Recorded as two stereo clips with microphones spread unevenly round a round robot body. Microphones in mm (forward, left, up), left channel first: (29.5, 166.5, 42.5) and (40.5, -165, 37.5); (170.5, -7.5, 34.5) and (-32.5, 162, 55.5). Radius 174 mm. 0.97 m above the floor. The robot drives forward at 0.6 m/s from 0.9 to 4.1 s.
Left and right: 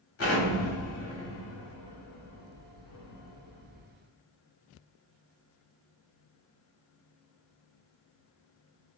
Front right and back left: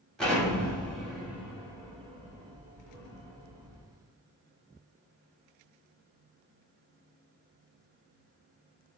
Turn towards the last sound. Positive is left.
turn(degrees=130)